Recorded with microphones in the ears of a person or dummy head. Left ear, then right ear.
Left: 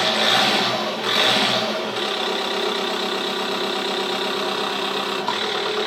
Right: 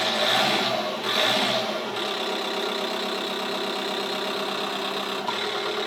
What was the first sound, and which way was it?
An engine running, 5° left (ahead or behind).